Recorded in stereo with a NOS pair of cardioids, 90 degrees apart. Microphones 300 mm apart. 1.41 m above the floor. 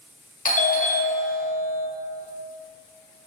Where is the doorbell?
25° left, 0.7 m.